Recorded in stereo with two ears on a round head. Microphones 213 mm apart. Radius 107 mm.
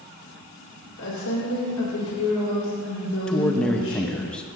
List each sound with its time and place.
1.0 s a woman speaking: 55° left (ahead or behind), 1.8 m
3.3 s a man speaking: 5° left (ahead or behind), 0.5 m